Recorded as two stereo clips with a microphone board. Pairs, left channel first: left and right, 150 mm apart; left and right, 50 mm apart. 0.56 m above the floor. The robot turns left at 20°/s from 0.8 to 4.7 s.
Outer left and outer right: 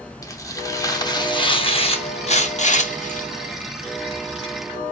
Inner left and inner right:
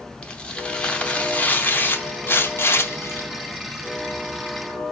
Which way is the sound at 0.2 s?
155° left.